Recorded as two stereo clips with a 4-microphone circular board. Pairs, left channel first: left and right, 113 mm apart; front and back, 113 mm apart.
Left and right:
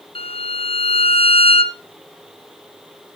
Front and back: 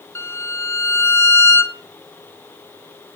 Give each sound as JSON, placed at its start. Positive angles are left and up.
{"t": 0.1, "sound": "a violin", "azimuth_deg": 65, "distance_m": 0.6}